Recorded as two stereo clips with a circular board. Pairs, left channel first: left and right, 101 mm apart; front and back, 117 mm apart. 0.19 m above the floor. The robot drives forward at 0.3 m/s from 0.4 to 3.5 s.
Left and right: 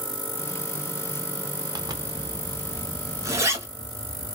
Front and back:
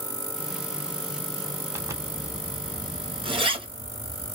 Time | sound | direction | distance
1.8 | a zipper | 120° right | 0.7 m